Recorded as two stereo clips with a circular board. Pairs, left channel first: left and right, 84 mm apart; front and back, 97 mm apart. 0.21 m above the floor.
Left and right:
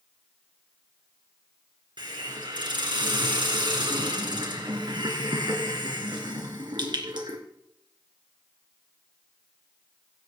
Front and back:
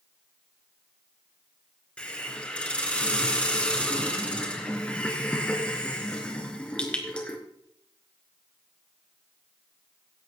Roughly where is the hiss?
Right.